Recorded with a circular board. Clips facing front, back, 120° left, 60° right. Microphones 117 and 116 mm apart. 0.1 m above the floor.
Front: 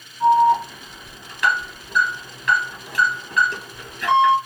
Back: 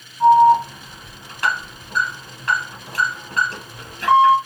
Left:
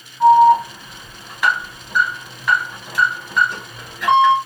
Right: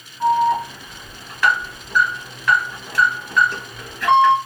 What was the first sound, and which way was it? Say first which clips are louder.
An alarm: back 4 dB, left 7 dB; straight behind.